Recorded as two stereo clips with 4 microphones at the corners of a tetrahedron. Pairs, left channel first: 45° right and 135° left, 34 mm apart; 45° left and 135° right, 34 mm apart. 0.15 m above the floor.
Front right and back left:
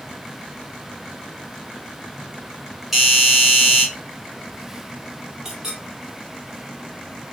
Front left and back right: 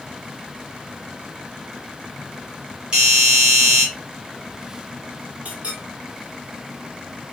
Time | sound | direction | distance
2.9 | a doorbell | 150° right | 1.4 m
5.5 | a clink | 165° right | 1.5 m